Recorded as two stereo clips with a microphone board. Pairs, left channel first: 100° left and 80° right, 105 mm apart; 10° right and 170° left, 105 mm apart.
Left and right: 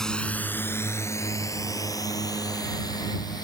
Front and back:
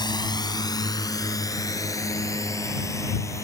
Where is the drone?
15° left; by 3.5 s 50° left.